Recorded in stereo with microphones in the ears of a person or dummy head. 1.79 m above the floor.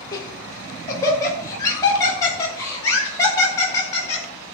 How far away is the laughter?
About 4.5 m.